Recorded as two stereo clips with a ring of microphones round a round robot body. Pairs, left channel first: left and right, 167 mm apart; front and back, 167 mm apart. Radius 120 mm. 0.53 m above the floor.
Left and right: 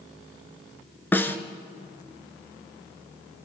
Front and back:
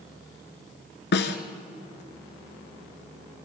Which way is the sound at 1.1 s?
10° left.